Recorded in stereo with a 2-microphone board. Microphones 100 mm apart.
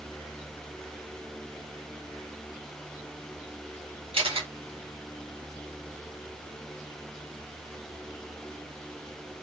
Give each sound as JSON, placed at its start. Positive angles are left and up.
{"t": 4.1, "sound": "a camera shutter", "side_deg": -60, "distance_m": 1.1}